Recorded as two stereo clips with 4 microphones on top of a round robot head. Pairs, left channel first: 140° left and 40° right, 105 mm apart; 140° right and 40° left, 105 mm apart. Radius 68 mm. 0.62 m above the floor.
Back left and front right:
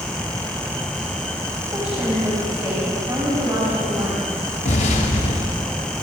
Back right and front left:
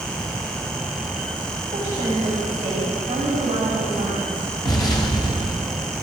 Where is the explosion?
165° left, 1.7 m.